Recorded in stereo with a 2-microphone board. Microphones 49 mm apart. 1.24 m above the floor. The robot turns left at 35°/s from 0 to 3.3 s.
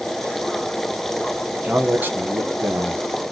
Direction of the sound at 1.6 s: 25° right.